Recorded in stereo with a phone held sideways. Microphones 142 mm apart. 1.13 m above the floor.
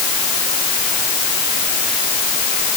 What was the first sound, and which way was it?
Only background noise.